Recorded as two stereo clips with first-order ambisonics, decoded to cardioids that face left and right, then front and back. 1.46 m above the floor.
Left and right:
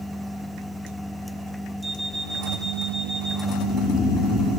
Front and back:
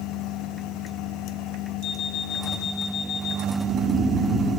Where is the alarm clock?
10° right, 1.4 m.